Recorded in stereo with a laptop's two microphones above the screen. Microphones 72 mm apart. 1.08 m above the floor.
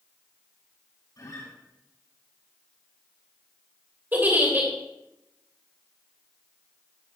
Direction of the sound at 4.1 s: 25° right (ahead or behind).